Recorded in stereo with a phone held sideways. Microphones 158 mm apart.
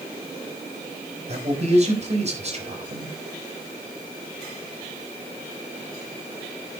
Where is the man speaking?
40° right (ahead or behind), 5 m.